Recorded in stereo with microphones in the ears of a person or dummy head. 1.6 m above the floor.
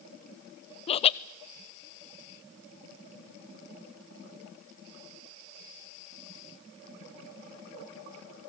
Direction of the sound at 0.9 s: 35° left (ahead or behind).